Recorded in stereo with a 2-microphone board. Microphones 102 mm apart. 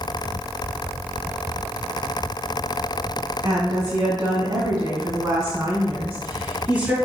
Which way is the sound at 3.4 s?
40° right (ahead or behind).